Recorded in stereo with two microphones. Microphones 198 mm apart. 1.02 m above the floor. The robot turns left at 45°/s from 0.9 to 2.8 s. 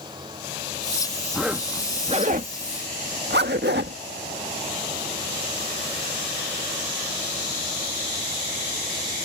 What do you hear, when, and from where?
1.3 s a zipper: centre (ahead or behind); by 4.0 s 60° right (ahead or behind)